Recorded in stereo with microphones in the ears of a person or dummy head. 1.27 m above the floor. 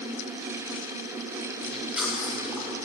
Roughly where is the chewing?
Centre.